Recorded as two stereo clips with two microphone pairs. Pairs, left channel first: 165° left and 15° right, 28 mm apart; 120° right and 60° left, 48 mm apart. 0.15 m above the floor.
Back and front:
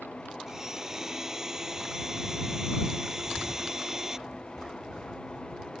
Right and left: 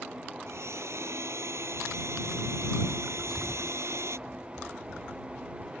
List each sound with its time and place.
0.5 s a blender: 55° left
3.2 s a bird: 35° left